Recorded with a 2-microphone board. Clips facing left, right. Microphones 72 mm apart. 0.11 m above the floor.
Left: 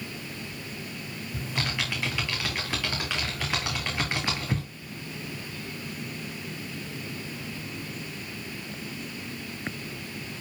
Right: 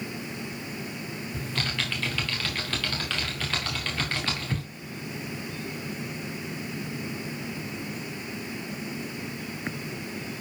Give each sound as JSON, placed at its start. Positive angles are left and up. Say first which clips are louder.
{"t": 1.3, "sound": "typing on a keyboard", "louder": "left 1 dB", "side_deg": 15, "distance_m": 3.5}